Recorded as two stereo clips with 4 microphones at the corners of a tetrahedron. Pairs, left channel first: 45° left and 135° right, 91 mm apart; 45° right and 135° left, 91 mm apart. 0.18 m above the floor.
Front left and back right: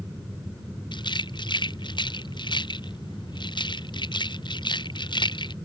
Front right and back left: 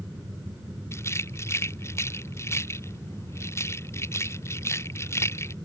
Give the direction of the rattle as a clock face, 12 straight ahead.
12 o'clock.